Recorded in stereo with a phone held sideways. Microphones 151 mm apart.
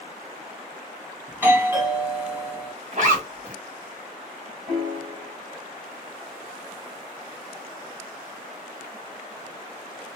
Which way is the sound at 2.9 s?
55° right (ahead or behind).